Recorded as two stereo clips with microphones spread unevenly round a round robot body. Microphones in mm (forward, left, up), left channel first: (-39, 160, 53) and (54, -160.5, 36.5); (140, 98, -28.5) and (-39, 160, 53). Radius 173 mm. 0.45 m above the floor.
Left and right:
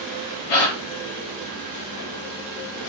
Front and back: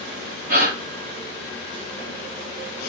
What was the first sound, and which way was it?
A gasp, 125° left.